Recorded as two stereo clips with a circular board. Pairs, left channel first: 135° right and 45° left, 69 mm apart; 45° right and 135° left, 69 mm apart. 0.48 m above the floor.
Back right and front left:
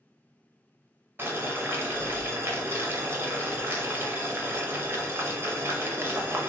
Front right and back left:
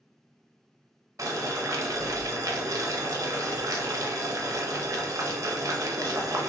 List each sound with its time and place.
1.2 s boiling: 100° left, 0.6 m